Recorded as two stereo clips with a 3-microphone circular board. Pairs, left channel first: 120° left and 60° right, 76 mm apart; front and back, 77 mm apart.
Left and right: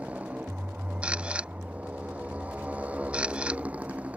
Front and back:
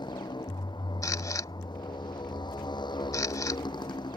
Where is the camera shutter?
10° left.